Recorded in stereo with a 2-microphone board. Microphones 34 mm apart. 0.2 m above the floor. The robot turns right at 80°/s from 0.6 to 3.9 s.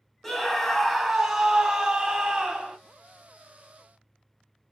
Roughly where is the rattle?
I don't hear a rattle.